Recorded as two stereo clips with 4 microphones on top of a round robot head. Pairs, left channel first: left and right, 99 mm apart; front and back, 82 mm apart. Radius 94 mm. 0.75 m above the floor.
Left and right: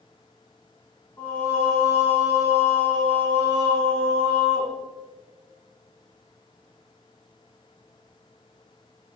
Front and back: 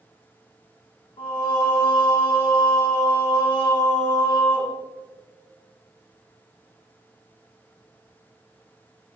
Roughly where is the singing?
Ahead.